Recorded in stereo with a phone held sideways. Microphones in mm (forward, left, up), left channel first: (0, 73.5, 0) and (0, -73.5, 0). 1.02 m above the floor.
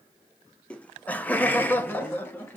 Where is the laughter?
10° left (ahead or behind), 0.6 m; by 2.6 s 15° left (ahead or behind), 1.5 m.